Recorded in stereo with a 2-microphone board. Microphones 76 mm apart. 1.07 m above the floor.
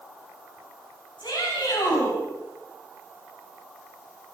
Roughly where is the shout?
Left.